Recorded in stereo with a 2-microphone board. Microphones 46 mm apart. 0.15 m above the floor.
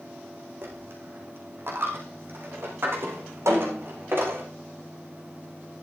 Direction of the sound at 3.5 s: 80° right.